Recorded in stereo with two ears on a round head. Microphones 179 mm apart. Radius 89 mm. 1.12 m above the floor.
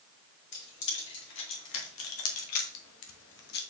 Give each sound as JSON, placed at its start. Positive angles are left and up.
{"t": 0.5, "sound": "keys jangling", "side_deg": 55, "distance_m": 2.5}